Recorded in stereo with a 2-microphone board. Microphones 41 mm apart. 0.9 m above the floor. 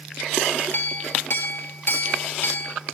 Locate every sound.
0.7 s a clink: 55° left (ahead or behind), 1.6 m